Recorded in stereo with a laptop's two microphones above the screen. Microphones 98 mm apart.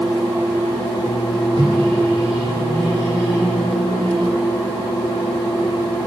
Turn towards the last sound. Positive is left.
turn(degrees=-85)